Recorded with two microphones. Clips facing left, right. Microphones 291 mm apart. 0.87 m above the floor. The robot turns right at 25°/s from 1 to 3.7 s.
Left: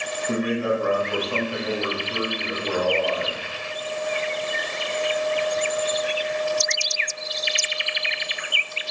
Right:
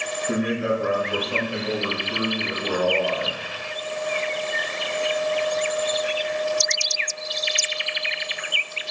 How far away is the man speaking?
About 1.2 m.